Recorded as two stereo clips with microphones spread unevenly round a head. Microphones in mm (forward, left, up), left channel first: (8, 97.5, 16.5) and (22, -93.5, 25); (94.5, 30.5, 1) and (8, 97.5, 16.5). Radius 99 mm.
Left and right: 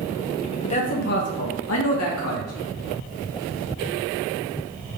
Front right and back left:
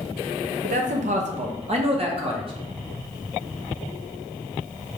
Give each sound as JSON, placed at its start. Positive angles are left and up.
{"t": 0.6, "sound": "a man speaking", "azimuth_deg": 155, "distance_m": 0.7}